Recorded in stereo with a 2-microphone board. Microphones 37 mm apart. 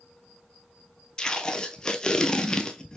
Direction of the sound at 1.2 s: 25° left (ahead or behind).